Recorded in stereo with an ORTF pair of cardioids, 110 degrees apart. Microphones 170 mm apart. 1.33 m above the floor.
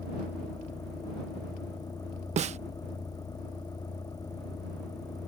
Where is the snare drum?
40° right.